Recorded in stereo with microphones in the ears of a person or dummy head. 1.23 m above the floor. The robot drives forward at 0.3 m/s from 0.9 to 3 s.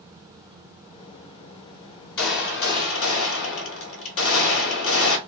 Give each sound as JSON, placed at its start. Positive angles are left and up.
{"t": 2.2, "sound": "a gunshot", "side_deg": 65, "distance_m": 1.3}